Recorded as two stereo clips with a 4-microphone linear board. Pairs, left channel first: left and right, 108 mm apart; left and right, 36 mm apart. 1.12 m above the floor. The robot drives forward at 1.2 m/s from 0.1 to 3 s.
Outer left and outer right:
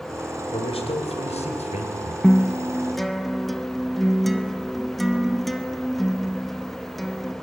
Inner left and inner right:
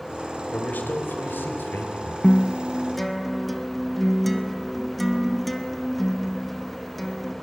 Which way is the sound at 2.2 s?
Centre (ahead or behind).